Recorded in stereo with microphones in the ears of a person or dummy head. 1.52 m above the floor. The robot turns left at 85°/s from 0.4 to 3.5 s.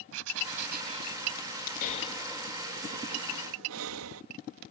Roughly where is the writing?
Right.